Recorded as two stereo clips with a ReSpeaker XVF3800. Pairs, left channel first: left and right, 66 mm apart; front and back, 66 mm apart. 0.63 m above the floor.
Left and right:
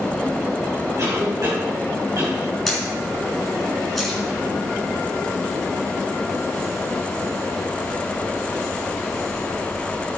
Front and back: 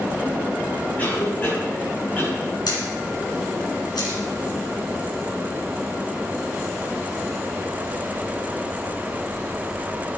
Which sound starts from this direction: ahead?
A camera shutter, at 2.7 s.